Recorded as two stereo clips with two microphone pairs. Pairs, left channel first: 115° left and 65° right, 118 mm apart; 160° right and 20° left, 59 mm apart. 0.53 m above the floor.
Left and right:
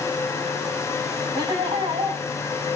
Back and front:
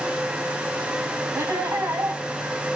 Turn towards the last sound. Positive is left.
turn(degrees=-5)